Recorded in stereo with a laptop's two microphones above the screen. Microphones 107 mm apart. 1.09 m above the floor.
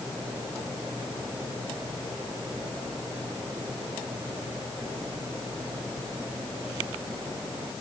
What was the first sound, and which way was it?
Only background noise.